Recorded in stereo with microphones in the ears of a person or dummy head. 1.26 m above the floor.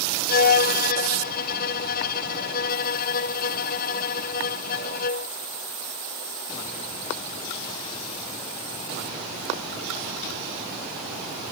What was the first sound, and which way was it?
A violin, 45° left (ahead or behind).